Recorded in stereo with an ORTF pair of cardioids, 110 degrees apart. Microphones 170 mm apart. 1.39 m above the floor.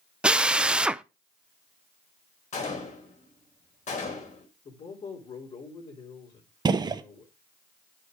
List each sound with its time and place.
0.2 s a drill: 5° right, 0.5 m
2.5 s a gunshot: 45° left, 4 m
4.7 s a man speaking: 40° left, 4 m
6.7 s a gunshot: 25° right, 1.0 m